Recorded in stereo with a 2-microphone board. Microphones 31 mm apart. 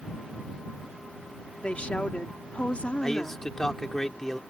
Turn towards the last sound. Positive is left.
turn(degrees=15)  # may be behind; listen again after turning